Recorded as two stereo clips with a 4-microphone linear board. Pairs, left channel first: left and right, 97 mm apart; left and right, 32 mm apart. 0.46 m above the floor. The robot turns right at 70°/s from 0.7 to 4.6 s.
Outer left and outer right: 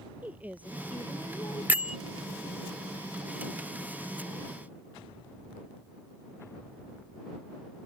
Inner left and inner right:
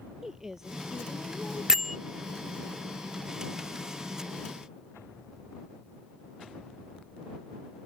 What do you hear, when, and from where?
0.2 s a woman speaking: 15° right; by 2.1 s 80° left
1.7 s a bell: 20° right (ahead or behind); by 2.0 s 10° right (ahead or behind)